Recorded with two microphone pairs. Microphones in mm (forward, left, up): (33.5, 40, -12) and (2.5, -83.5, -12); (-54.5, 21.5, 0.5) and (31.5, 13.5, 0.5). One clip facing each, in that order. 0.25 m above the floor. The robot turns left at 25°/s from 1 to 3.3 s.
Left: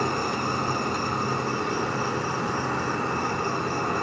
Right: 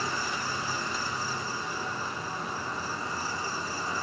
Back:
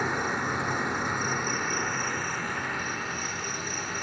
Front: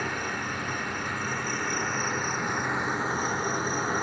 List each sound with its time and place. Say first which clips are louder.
0.0 s an insect: left 7 dB, back 3 dB; 110° left, 0.9 m; by 4.0 s 50° left, 0.9 m